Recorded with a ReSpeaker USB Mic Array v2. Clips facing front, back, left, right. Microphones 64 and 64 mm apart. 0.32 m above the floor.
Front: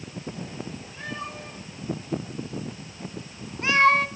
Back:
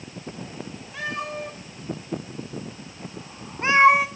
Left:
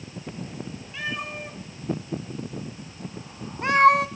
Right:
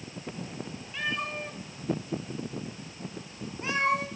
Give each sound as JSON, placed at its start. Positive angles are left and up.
{"t": 0.9, "sound": "a cat meowing", "azimuth_deg": 180, "distance_m": 3.5}